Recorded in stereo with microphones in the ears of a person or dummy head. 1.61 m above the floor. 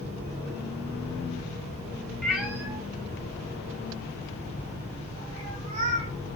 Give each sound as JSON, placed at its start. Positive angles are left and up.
{"t": 2.2, "sound": "a cat meowing", "side_deg": 0, "distance_m": 1.4}